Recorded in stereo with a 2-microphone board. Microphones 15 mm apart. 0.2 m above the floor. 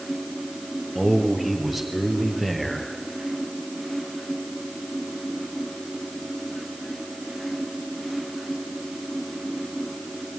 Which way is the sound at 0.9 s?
5° right (ahead or behind).